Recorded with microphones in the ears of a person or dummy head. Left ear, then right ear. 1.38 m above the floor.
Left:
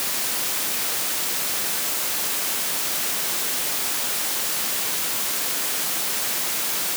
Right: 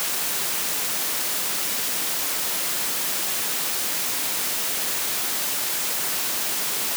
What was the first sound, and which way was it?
Only background noise.